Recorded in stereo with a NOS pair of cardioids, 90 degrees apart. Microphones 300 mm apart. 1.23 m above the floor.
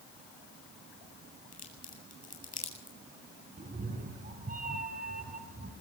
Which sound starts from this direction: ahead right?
A cat meowing, at 3.6 s.